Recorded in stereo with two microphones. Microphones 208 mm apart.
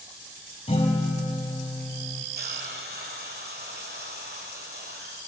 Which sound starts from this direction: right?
A hiss, at 2.4 s.